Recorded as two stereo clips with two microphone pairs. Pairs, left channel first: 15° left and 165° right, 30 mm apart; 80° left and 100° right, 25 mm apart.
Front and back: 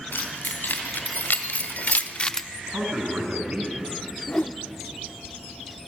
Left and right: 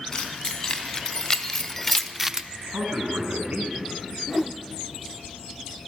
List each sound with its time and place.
0.1 s keys jangling: 10° left, 3.5 m; by 2.4 s 65° right, 0.5 m
2.5 s a man speaking: 120° right, 5.5 m
4.3 s a whoosh: 20° right, 0.5 m